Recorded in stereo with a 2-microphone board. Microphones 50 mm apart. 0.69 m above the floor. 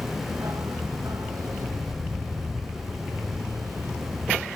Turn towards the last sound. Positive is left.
turn(degrees=-75)  # may be behind; listen again after turning